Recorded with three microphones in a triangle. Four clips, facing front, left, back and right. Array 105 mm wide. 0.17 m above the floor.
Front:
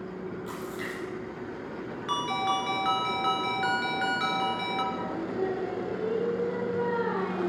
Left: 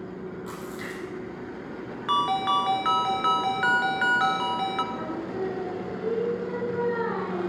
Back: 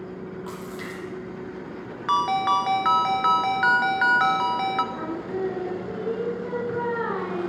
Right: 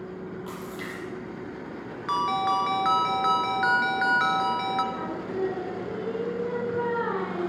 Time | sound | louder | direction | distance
0.5 | a splash | even, back 1 dB | 160° right | 6 m
2.1 | a ringtone | left 1 dB, back 7 dB | 165° left | 0.8 m
4.9 | singing | even, back 2 dB | 165° right | 2 m